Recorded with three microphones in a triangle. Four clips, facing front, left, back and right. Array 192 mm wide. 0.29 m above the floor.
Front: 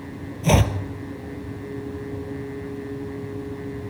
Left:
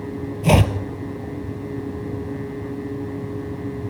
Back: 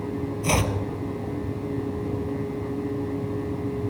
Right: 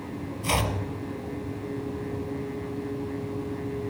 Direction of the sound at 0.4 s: 70° left.